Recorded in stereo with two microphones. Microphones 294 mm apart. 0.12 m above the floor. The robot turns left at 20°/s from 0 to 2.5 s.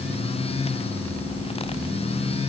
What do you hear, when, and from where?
Only background noise.